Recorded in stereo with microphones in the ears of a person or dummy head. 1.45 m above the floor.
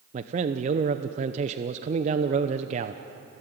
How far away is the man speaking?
About 0.8 m.